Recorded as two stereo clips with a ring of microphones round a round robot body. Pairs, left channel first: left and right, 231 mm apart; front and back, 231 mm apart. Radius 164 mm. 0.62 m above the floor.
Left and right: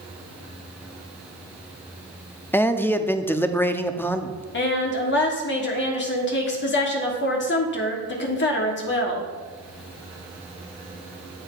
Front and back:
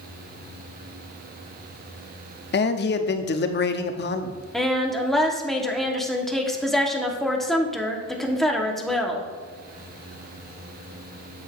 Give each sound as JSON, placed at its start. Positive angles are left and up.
{"t": 2.5, "sound": "a man speaking", "azimuth_deg": 10, "distance_m": 0.7}
{"t": 4.5, "sound": "a woman speaking", "azimuth_deg": 90, "distance_m": 1.5}